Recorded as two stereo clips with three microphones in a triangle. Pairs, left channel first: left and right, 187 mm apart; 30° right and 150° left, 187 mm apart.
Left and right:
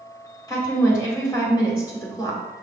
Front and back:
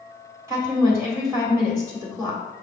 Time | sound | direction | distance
0.5 | a woman speaking | 110° left | 1.4 m